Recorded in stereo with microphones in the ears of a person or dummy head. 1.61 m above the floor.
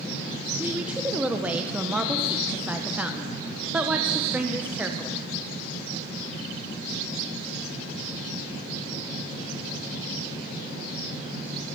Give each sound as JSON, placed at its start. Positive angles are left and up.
{"t": 0.6, "sound": "a woman speaking", "side_deg": -10, "distance_m": 0.8}